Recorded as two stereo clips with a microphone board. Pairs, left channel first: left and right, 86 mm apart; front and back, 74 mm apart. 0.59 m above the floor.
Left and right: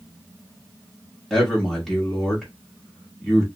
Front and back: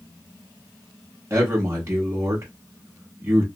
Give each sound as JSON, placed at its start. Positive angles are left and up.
{"t": 1.3, "sound": "a man speaking", "azimuth_deg": 180, "distance_m": 1.2}